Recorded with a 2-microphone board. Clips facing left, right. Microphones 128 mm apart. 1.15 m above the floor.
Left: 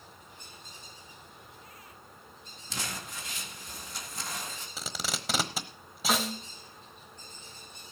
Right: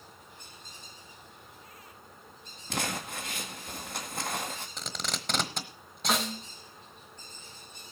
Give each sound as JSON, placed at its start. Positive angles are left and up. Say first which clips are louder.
{"t": 2.7, "sound": "crumpling", "louder": "right 6 dB", "side_deg": -60, "distance_m": 1.9}
{"t": 4.8, "sound": "tape being pulled", "louder": "left 4 dB", "side_deg": 5, "distance_m": 1.0}
{"t": 6.1, "sound": "a snare drum", "louder": "even", "side_deg": 0, "distance_m": 1.1}